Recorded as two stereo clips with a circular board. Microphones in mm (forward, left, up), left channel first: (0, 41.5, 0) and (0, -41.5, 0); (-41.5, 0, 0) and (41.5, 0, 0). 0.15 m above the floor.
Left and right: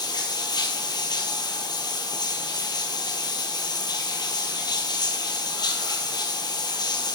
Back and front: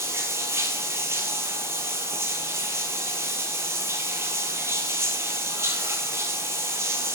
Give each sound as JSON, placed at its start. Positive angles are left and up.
{"t": 0.0, "sound": "running water", "azimuth_deg": 55, "distance_m": 1.2}